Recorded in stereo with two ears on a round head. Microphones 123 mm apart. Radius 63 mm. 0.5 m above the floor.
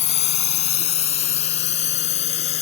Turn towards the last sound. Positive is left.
turn(degrees=55)  # may be behind; listen again after turning